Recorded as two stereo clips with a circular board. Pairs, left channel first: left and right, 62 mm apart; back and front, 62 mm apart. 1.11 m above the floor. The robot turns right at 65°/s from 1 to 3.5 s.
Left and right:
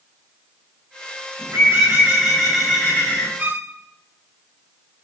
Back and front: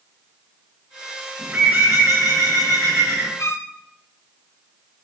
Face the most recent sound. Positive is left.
turn(degrees=-145)